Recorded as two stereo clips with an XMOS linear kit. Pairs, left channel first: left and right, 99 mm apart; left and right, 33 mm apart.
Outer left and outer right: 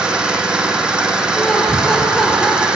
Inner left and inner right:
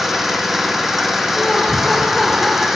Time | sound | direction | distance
0.0 | an engine running | 10° right (ahead or behind) | 2.5 m
1.4 | laughter | 5° left (ahead or behind) | 1.7 m